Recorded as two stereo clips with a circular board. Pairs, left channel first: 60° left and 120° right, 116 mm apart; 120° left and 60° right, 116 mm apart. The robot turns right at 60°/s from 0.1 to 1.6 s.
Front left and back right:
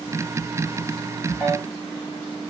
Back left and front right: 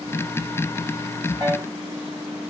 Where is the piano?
55° right, 1.3 m; by 1.7 s 45° right, 1.3 m.